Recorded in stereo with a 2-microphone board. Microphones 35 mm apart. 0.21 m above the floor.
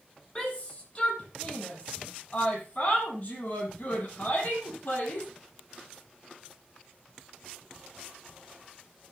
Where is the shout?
25° left (ahead or behind), 7.5 m; by 5.3 s 60° left (ahead or behind), 7 m.